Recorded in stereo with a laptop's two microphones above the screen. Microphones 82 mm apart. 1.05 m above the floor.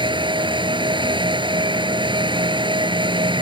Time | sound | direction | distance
0.0 | a fan | 75° right (ahead or behind) | ?